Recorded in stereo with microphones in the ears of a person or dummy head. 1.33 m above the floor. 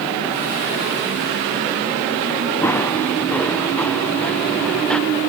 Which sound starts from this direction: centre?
Running footsteps, at 2.6 s.